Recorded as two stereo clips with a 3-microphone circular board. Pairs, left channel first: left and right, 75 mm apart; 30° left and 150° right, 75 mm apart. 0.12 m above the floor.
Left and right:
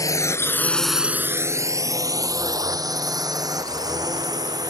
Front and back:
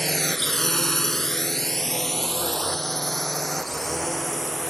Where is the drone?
120° left; by 4.7 s 60° right.